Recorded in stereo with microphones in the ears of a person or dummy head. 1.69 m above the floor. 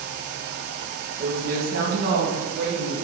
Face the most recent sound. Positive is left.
turn(degrees=-70)  # may be behind; listen again after turning